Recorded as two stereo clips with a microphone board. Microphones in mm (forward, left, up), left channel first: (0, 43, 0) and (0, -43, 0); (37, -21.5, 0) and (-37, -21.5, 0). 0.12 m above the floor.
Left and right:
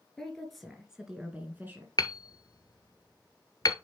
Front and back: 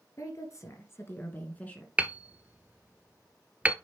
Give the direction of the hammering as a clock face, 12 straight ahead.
8 o'clock.